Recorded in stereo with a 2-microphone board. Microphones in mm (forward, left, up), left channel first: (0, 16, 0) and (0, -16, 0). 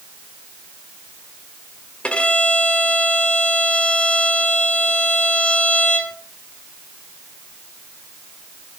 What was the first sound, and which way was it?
A violin, 35° left (ahead or behind).